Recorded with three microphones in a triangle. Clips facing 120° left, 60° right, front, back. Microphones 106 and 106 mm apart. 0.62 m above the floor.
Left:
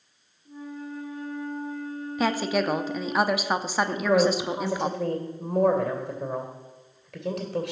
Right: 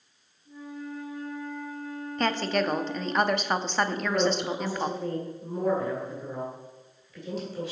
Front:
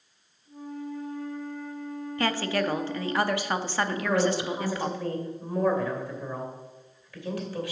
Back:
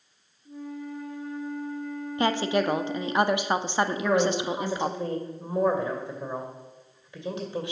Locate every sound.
0.5 s a flute: 175° left, 3.5 m
2.2 s a woman speaking: 170° right, 0.6 m
3.9 s a woman speaking: 115° left, 2.5 m